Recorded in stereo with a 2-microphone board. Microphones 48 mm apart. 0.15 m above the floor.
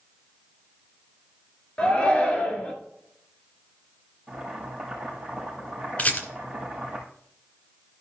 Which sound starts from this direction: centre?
Boiling, at 4.3 s.